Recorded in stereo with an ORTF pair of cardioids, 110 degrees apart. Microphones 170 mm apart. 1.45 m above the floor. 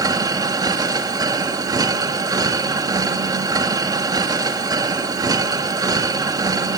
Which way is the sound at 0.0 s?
20° right.